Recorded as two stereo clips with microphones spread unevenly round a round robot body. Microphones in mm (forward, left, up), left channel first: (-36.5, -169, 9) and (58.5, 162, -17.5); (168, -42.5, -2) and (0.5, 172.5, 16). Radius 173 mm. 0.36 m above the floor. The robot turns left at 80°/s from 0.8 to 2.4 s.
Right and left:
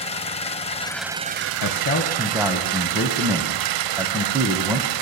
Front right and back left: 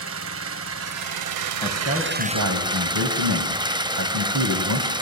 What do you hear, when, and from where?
0.0 s an engine running: straight behind, 0.8 m; by 5.0 s 50° left, 0.8 m
1.6 s a man speaking: 140° right, 2.5 m; by 4.9 s 155° left, 2.5 m